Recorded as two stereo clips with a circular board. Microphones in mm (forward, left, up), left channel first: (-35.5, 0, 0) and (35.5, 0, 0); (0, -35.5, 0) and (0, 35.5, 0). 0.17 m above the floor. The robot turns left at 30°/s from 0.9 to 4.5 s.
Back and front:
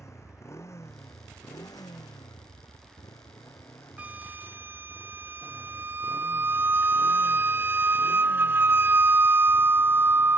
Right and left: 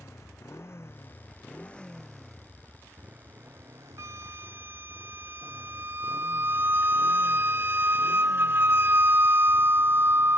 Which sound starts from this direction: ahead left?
A flute, at 4.0 s.